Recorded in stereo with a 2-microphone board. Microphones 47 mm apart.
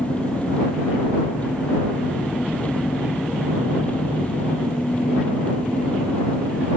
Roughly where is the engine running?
Left.